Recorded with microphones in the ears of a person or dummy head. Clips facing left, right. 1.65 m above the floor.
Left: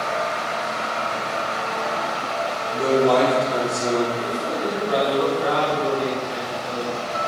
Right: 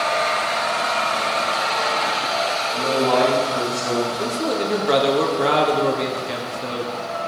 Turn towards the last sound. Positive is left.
turn(degrees=-80)